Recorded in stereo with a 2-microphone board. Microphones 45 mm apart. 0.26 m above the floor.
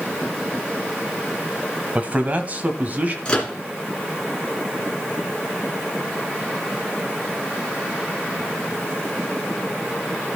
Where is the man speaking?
35° right (ahead or behind), 1.1 m.